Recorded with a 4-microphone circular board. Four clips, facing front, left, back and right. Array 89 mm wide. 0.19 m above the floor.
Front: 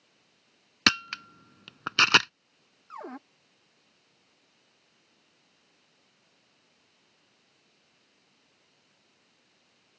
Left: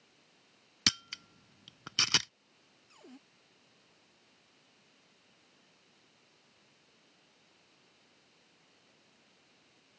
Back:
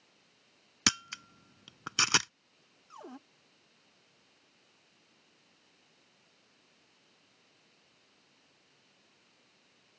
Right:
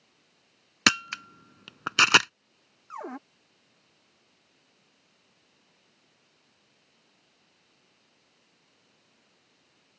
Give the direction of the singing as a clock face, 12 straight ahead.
I don't hear singing.